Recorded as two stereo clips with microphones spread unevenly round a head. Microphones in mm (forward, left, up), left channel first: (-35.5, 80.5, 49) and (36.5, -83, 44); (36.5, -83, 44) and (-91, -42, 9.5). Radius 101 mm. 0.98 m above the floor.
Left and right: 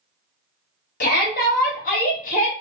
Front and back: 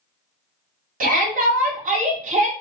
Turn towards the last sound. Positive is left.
turn(degrees=160)